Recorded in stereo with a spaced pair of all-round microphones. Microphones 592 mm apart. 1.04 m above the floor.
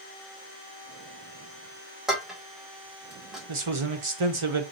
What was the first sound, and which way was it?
Dishes clattering, centre (ahead or behind).